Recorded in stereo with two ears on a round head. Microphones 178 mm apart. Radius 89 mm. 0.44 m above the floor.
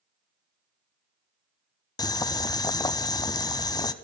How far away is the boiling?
About 0.8 m.